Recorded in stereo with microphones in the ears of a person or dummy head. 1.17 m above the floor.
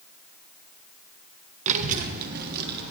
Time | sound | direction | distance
1.7 | a child speaking | 40° right (ahead or behind) | 0.7 m